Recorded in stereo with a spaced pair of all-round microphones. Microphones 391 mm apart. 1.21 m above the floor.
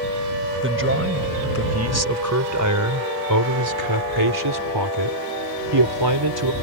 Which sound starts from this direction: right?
A man speaking, at 0.6 s.